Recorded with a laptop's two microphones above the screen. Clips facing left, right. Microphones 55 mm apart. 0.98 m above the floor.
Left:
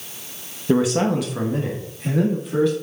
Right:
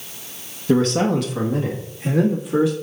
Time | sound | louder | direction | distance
0.7 | a man speaking | right 1 dB | 10° left (ahead or behind) | 1.0 m